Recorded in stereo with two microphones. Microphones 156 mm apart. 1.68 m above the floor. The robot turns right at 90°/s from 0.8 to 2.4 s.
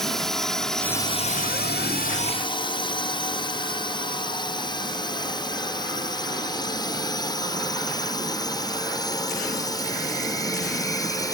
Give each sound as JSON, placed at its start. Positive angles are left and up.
{"t": 0.0, "sound": "a drone", "side_deg": 0}